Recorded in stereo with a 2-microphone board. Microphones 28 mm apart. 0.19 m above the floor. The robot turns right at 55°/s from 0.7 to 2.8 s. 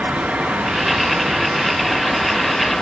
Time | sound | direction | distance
0.0 | running water | 80° right | 6 m